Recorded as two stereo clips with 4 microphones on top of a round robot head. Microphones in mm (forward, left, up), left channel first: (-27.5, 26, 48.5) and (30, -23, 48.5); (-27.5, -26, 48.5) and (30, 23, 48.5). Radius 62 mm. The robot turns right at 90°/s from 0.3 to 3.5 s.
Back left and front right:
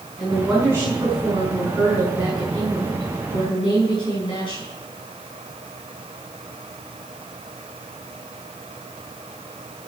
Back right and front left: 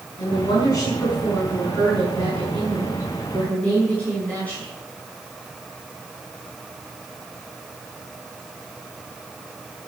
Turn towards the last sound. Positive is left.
turn(degrees=150)